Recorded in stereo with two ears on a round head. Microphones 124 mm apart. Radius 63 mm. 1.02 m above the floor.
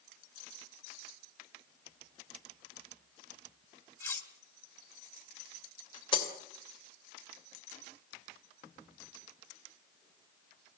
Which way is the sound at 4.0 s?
15° left (ahead or behind).